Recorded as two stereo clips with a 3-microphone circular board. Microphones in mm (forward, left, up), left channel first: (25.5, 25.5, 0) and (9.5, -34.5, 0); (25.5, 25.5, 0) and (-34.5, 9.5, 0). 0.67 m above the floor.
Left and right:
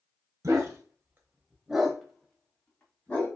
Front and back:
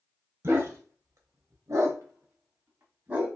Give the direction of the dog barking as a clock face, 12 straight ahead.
4 o'clock.